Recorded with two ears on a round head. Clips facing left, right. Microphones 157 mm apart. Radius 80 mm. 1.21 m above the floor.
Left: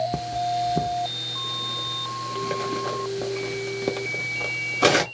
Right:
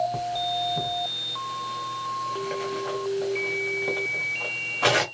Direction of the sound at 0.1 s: 50° left (ahead or behind).